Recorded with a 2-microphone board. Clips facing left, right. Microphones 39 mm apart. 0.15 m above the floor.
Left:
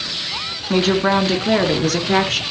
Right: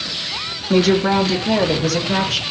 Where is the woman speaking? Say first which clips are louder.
Right 1 dB; 25° left (ahead or behind), 1.7 m; by 2.4 s 55° left (ahead or behind), 3 m.